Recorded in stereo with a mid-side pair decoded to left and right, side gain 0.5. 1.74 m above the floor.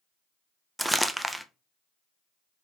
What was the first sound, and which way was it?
Crumpling, 5° right.